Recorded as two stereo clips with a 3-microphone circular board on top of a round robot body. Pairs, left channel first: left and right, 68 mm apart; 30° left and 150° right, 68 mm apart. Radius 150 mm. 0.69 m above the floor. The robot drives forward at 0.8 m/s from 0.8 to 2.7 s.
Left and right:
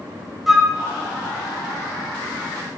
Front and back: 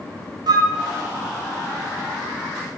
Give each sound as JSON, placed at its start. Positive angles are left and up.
{"t": 0.5, "sound": "a flute", "azimuth_deg": 180, "distance_m": 0.8}